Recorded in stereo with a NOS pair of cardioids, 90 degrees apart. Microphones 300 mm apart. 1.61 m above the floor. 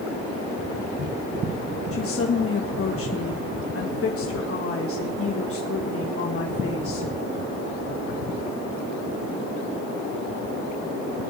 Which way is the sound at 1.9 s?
50° left.